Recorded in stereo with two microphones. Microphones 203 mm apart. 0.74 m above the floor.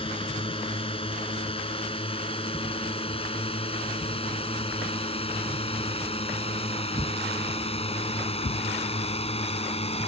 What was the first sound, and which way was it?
A drone, 25° left (ahead or behind).